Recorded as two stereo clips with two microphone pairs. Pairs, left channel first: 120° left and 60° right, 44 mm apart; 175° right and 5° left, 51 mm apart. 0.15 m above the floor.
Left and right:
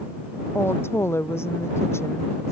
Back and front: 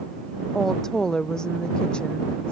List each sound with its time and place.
0.6 s a woman speaking: 105° left; by 2.5 s 115° left